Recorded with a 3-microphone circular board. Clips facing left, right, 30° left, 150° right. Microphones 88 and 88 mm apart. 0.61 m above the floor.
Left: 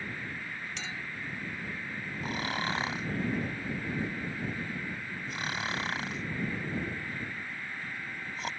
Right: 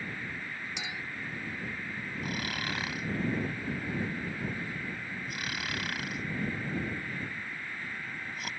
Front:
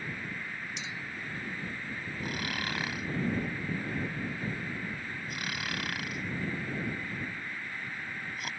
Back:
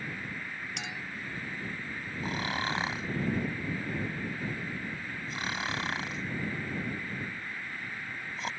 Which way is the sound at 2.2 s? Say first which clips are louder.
Left 4 dB, back 4 dB; 150° left.